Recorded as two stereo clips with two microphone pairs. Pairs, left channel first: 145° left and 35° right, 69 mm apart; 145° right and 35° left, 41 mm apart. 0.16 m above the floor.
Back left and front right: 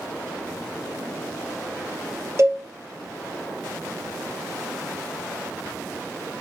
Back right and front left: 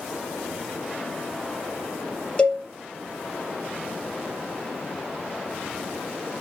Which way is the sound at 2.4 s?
80° right.